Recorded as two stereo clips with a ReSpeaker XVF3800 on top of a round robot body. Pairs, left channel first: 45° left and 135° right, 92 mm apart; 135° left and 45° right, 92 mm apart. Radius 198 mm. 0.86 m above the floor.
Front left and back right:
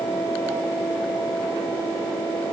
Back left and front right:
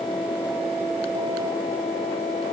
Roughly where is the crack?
I don't hear a crack.